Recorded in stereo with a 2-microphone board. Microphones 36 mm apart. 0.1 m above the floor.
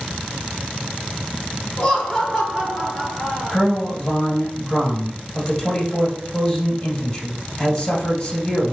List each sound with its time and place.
1.8 s laughter: 15° left (ahead or behind), 1.2 m; by 3.6 s 30° right (ahead or behind), 1.3 m
3.5 s a man speaking: 25° left (ahead or behind), 2 m